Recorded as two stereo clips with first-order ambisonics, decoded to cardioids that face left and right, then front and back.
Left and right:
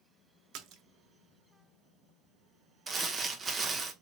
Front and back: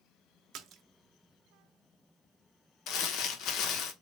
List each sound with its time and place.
0.5 s a splash: 130° right, 0.5 m
2.9 s crumpling: 20° right, 0.6 m